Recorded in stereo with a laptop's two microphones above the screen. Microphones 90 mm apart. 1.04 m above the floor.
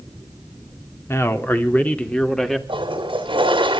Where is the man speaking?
30° left (ahead or behind), 2.5 m; by 2.6 s 5° left (ahead or behind), 2.5 m.